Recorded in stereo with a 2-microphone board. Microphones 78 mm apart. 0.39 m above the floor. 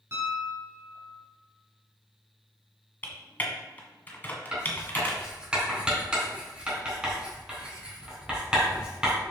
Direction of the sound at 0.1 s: 35° right (ahead or behind).